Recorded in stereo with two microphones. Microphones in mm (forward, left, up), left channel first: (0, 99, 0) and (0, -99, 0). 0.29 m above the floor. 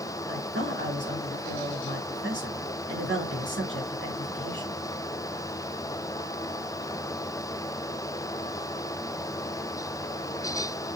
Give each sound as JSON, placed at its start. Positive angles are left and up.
{"t": 0.3, "sound": "a woman speaking", "side_deg": -70, "distance_m": 4.0}